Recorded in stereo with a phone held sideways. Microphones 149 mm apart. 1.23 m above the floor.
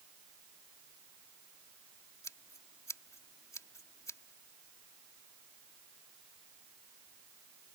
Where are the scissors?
20° left (ahead or behind).